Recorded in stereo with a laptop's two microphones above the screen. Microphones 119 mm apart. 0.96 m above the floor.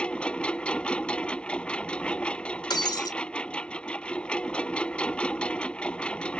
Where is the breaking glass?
35° left (ahead or behind).